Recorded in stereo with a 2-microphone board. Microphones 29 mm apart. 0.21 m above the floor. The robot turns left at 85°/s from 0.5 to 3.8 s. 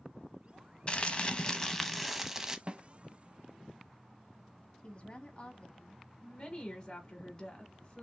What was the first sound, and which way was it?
Crumpling, 100° left.